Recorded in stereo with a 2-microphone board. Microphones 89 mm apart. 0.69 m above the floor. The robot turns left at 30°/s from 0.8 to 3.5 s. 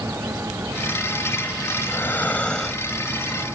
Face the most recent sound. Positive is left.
turn(degrees=-20)